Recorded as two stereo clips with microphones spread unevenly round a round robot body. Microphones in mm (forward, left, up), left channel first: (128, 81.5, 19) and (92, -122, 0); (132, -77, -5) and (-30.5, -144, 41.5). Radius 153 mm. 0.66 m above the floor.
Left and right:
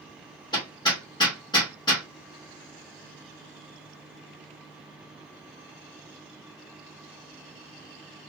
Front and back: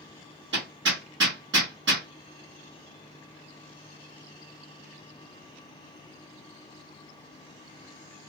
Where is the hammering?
155° left, 1.4 m.